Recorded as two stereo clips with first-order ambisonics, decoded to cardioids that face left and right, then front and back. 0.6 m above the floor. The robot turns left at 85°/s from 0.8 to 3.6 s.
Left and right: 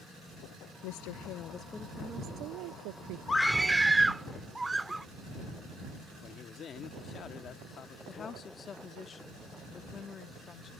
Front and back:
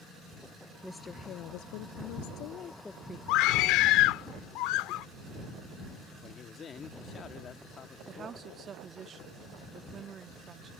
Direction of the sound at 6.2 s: 50° left.